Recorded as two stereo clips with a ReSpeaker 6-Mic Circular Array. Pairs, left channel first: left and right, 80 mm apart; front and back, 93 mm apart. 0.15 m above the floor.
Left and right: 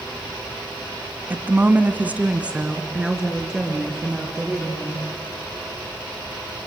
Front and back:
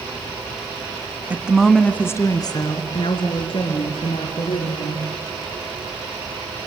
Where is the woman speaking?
130° right, 1.1 m; by 5.1 s 5° right, 4 m.